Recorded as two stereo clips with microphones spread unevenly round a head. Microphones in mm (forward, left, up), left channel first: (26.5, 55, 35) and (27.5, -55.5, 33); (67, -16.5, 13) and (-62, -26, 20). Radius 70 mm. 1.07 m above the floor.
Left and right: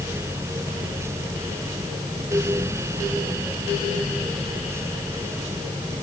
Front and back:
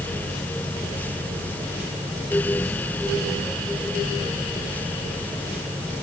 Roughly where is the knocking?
I don't hear knocking.